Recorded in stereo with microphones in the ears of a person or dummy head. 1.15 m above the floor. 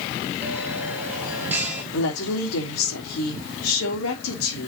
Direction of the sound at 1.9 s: 75° left (ahead or behind).